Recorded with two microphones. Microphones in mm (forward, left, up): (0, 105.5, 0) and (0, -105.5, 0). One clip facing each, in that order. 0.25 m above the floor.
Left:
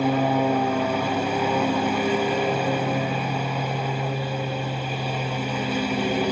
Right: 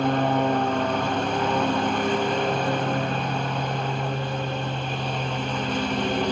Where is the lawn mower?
10° left (ahead or behind).